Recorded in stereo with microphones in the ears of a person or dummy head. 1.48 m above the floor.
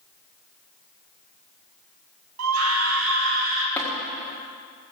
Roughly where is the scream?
Right.